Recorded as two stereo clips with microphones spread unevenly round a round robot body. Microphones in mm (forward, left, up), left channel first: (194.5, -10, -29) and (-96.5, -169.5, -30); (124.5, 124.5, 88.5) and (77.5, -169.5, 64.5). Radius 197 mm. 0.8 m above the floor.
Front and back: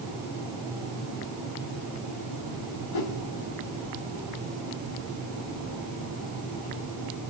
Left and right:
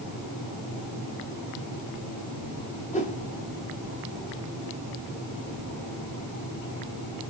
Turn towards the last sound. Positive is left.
turn(degrees=15)